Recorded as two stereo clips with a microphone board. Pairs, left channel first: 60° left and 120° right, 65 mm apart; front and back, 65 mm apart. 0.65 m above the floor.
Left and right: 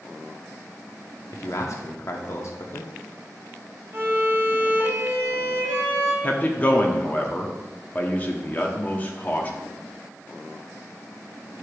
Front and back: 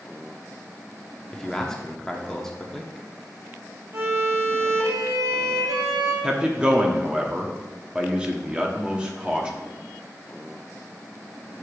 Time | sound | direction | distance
1.3 | a man speaking | 80° left | 0.9 m
3.9 | a violin | 170° right | 2 m
6.2 | a man speaking | 110° left | 1.1 m